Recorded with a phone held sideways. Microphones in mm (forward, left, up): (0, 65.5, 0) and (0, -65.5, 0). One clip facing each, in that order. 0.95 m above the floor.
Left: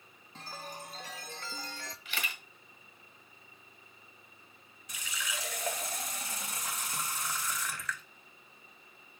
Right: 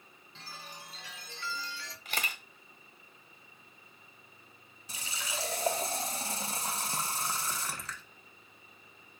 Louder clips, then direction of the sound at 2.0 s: Right 4 dB; 45° right (ahead or behind).